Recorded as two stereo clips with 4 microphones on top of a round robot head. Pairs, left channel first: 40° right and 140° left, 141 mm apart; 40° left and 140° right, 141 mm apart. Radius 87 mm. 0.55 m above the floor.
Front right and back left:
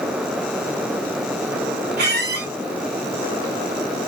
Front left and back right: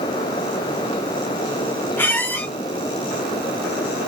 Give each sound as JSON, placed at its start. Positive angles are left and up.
{"t": 2.0, "sound": "a squeak", "azimuth_deg": 120, "distance_m": 2.0}